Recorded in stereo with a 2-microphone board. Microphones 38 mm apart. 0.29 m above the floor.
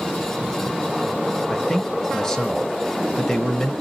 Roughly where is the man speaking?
Centre.